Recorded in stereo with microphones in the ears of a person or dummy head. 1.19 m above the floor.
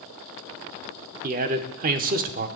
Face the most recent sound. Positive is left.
turn(degrees=-45)  # may be behind; listen again after turning